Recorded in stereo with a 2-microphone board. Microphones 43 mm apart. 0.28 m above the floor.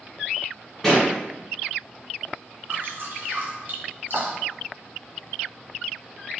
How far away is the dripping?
About 1.4 m.